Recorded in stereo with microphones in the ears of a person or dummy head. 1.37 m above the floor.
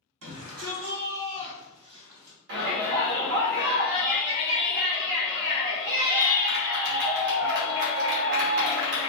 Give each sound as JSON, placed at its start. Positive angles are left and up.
{"t": 0.2, "sound": "a shout", "side_deg": -80, "distance_m": 1.3}
{"t": 2.5, "sound": "a shout", "side_deg": -60, "distance_m": 0.9}